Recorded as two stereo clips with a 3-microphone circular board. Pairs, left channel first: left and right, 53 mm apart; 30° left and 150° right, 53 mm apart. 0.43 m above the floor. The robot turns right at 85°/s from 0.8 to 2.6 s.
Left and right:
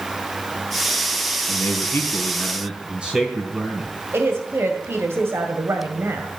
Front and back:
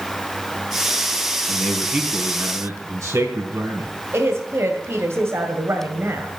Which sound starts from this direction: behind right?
A woman speaking, at 4.1 s.